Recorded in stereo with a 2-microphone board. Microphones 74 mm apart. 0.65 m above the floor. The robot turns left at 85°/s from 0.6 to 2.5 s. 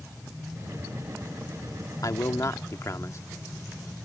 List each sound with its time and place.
2.0 s a man speaking: 100° left; by 3.2 s 55° left